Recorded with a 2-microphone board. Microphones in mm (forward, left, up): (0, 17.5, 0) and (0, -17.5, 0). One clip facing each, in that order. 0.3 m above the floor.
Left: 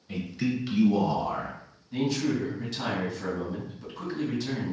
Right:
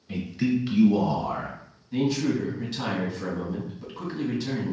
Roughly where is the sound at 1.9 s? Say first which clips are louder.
Right 2 dB; centre.